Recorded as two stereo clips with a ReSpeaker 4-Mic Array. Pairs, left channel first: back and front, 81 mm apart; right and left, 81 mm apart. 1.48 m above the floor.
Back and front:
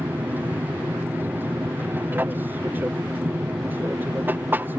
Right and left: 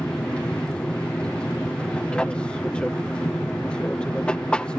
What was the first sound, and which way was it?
An aircraft, 25° right.